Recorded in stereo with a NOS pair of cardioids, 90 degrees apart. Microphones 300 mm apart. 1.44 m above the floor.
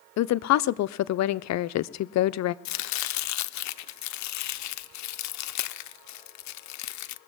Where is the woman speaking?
65° left, 0.6 m.